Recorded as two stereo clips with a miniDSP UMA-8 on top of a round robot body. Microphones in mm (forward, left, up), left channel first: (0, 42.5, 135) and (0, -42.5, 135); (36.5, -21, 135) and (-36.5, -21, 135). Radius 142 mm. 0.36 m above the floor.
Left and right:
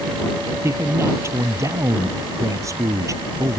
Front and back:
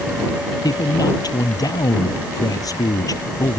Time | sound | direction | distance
0.6 | a man speaking | 30° right | ?